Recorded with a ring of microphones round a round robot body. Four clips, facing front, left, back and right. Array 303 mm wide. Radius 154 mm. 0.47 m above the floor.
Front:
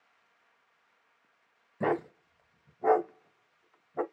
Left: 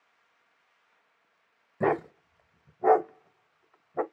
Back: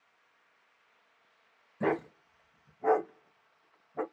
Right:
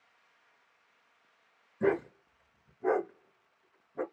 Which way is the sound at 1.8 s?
75° left.